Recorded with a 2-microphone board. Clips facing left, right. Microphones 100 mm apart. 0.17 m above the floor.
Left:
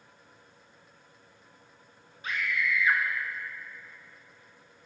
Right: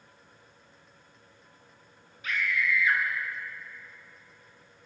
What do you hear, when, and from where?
2.2 s a scream: 35° left (ahead or behind), 1.8 m